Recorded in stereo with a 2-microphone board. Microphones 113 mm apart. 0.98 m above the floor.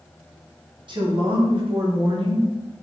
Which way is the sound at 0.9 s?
45° right (ahead or behind).